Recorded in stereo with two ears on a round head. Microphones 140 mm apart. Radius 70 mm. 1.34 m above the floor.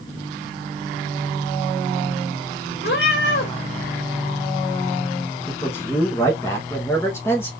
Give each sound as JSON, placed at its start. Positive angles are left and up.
{"t": 2.8, "sound": "a cat meowing", "side_deg": 70, "distance_m": 2.0}
{"t": 5.5, "sound": "a man speaking", "side_deg": 15, "distance_m": 1.1}